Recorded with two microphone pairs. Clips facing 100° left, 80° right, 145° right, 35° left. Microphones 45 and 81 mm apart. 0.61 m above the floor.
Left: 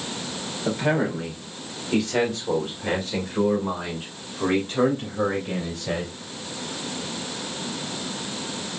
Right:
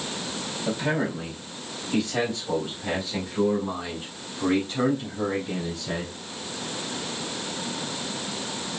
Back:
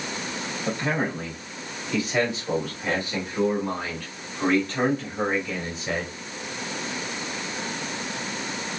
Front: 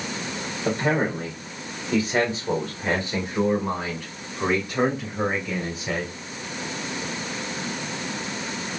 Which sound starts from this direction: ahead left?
A man speaking, at 0.7 s.